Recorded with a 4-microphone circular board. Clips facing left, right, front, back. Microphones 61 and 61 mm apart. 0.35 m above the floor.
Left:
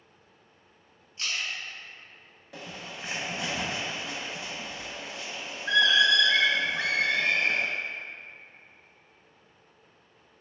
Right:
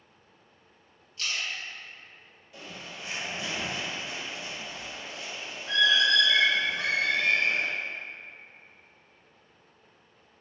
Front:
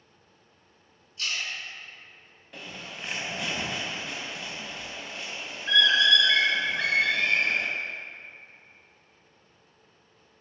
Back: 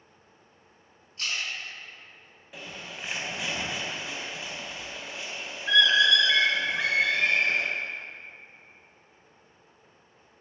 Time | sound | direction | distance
1.2 | a splash | 155° left | 1.8 m
2.5 | a bird | 95° left | 0.6 m